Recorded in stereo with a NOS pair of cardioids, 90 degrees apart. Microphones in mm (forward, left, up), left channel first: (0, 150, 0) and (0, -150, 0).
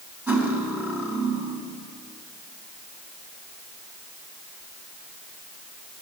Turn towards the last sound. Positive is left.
turn(degrees=-5)